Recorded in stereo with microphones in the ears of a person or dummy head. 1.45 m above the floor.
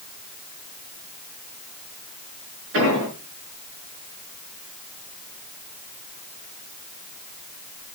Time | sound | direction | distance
2.7 | an explosion | 65° right (ahead or behind) | 6 m